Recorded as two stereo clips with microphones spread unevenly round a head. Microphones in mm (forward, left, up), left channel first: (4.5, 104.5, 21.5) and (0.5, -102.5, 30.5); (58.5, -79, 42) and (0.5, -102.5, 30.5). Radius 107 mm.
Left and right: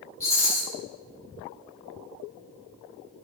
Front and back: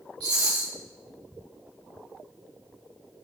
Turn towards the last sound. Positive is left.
turn(degrees=165)